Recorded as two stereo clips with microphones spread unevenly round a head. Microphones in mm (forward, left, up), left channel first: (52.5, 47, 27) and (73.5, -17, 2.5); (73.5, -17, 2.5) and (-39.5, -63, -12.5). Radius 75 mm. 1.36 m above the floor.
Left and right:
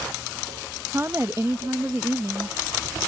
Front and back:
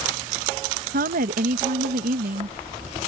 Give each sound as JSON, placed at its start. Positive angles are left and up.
{"t": 0.9, "sound": "a woman speaking", "azimuth_deg": -150}